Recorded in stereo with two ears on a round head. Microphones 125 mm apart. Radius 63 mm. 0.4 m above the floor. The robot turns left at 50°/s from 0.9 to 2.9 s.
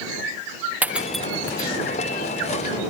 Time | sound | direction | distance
0.8 | breaking glass | 10° right (ahead or behind) | ?